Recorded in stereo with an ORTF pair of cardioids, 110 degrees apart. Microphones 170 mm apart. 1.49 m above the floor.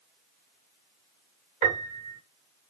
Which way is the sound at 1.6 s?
45° right.